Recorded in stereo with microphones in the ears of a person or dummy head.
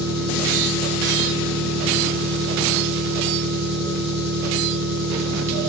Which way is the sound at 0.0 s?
55° right (ahead or behind).